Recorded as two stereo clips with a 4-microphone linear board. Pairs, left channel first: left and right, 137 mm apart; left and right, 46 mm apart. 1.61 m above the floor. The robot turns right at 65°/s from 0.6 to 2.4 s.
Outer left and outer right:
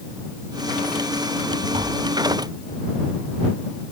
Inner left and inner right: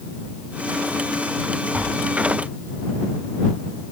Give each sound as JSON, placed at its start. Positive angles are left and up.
{"t": 1.7, "sound": "tapping", "side_deg": -40}